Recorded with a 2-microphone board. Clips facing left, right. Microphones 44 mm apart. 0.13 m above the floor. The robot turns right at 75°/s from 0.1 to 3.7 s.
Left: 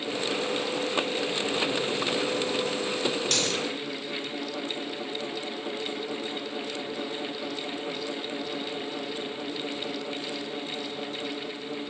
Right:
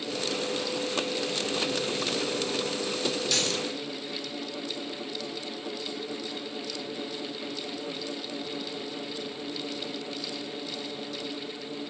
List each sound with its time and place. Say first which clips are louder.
3.3 s a dropped coin: left 1 dB; 45° left (ahead or behind), 1.4 m; by 3.6 s 65° left (ahead or behind), 1.4 m